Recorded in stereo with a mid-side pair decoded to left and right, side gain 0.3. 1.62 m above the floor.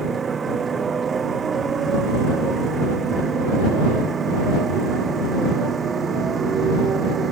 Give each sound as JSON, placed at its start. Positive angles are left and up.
{"t": 0.0, "sound": "a motorcycle", "azimuth_deg": -60}